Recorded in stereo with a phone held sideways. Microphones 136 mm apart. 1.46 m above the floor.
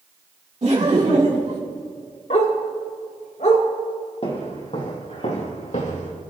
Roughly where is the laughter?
Right.